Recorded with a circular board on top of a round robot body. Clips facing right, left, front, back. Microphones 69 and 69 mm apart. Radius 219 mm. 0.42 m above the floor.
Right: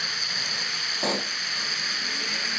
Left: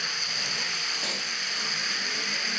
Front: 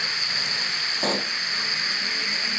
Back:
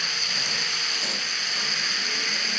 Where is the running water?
50° right.